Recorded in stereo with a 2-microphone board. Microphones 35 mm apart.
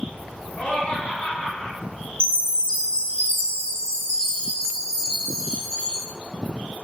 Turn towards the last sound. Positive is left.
turn(degrees=30)  # may be behind; listen again after turning